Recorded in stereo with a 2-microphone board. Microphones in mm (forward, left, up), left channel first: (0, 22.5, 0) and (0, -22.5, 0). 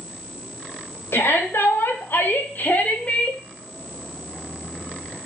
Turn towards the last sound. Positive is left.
turn(degrees=20)  # may be behind; listen again after turning